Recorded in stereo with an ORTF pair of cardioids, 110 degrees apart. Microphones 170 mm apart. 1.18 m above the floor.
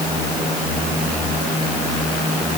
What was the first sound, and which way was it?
Only background noise.